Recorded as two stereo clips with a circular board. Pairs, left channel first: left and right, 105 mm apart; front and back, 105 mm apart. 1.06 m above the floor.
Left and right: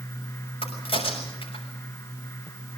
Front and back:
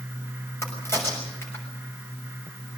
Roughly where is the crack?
Ahead left.